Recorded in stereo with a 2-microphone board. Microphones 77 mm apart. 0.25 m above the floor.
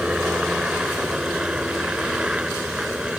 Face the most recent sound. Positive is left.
turn(degrees=-10)  # may be behind; listen again after turning